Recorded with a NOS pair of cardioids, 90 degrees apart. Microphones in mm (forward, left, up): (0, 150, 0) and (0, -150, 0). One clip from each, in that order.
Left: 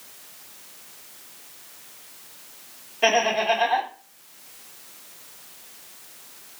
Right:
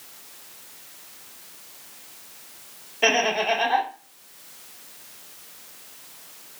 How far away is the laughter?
About 0.9 m.